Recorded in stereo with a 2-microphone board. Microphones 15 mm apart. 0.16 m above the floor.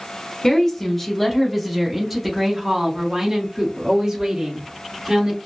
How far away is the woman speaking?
About 1.1 m.